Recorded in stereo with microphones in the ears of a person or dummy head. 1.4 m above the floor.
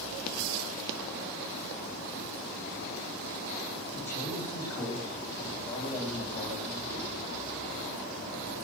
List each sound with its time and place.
3.9 s a man speaking: 5° left (ahead or behind), 8 m; by 7.1 s 25° left (ahead or behind), 11 m